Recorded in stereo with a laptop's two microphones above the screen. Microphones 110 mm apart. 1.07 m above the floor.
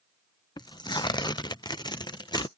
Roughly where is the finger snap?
I don't hear a finger snap.